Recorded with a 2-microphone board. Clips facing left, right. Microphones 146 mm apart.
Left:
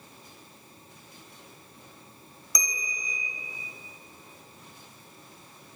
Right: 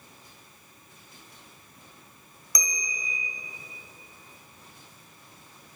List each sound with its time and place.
2.5 s a bell: centre (ahead or behind), 1.1 m